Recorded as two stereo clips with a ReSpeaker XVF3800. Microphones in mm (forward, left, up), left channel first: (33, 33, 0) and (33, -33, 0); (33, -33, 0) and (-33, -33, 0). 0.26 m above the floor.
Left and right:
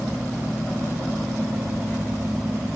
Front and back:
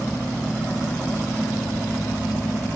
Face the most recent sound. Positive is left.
No sound to turn to.